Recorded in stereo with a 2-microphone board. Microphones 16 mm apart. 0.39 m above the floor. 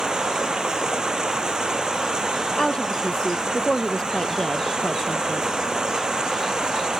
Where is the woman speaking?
45° left (ahead or behind).